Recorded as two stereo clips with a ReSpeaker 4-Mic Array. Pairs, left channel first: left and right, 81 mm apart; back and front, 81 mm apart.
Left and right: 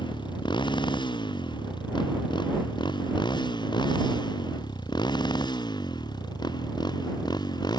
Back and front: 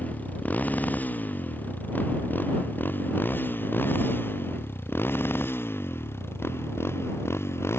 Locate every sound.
0.0 s a motorcycle: 110° left; by 7.8 s 120° left